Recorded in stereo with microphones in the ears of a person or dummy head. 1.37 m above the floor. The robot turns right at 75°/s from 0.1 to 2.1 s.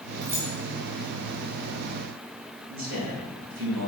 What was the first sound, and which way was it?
Keys jangling, 20° right (ahead or behind).